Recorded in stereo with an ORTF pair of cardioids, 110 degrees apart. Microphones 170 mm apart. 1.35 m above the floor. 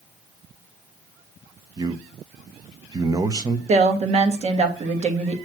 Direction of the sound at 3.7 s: 40° right.